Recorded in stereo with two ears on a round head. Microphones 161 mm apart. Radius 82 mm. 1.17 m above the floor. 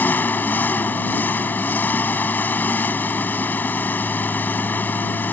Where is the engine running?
10° left (ahead or behind).